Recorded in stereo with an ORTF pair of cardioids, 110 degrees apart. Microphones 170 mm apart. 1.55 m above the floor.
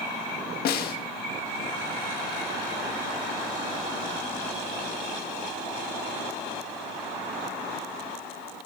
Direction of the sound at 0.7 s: 65° left.